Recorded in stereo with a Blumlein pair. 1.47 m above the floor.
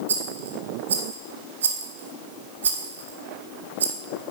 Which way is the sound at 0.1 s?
65° right.